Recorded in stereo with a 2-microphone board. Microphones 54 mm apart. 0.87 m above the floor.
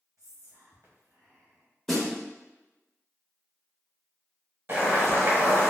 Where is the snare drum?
5° left (ahead or behind), 1.1 m.